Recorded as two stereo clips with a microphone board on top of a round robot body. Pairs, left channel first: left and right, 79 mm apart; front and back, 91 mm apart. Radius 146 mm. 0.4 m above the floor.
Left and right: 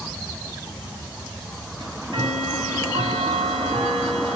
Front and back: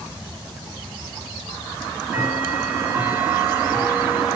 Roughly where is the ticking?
Right.